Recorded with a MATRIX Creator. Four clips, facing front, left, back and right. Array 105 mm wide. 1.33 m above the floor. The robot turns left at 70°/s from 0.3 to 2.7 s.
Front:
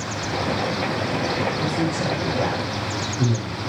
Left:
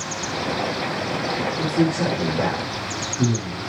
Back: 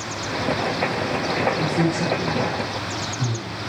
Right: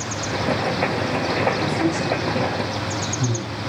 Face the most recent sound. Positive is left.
turn(degrees=65)